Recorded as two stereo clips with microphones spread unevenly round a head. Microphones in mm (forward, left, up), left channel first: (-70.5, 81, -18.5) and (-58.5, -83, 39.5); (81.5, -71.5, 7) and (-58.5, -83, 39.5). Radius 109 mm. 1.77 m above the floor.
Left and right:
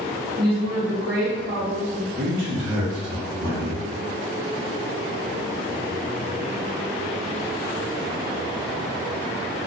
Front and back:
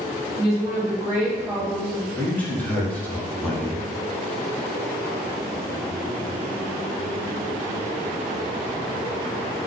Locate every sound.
0.4 s a woman speaking: 90° right, 1.8 m
2.2 s a man speaking: 75° right, 1.3 m